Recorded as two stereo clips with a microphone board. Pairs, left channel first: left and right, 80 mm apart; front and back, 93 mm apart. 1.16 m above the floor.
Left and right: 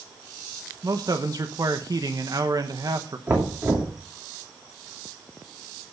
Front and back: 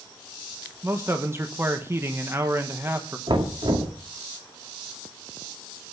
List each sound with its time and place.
0.8 s a man speaking: 120° right, 1.2 m
3.3 s knocking: 150° right, 2.5 m